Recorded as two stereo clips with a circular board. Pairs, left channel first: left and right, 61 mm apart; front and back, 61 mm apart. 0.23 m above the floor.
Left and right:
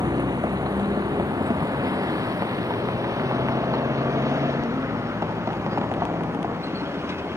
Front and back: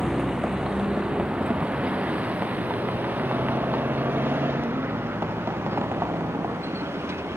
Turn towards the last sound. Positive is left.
turn(degrees=-135)